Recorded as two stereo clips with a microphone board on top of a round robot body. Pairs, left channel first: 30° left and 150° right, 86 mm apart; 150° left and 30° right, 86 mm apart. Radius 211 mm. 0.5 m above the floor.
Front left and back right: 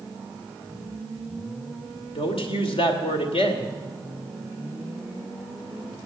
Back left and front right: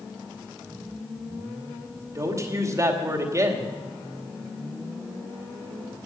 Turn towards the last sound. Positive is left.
turn(degrees=20)